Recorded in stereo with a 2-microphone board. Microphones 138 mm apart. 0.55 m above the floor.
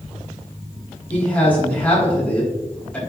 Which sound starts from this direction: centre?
A man speaking, at 1.1 s.